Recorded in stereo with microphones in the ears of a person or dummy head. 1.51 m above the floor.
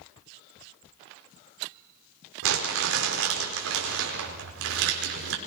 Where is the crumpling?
65° right (ahead or behind), 4.5 m.